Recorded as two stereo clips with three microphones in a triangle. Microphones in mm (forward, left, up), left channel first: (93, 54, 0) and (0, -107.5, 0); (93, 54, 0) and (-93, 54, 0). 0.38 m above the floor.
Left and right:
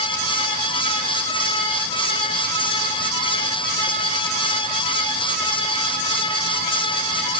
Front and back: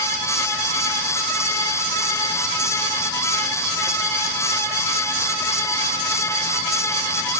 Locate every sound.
Only background noise.